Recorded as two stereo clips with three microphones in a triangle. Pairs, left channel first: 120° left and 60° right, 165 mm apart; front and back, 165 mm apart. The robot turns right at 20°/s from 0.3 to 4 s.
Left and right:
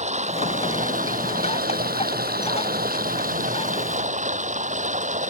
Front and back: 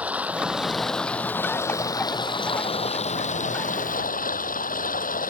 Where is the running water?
100° right; by 5.3 s 25° right.